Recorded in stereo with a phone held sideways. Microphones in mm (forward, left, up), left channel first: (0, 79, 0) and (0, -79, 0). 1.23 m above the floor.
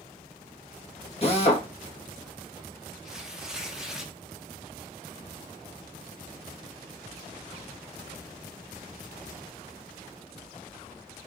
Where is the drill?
40° left (ahead or behind), 1.1 m.